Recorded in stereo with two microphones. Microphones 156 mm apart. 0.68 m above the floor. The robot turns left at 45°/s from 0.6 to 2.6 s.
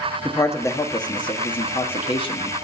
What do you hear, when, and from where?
0.2 s a man speaking: 20° left (ahead or behind), 1.2 m; by 2.5 s 30° left (ahead or behind), 1.2 m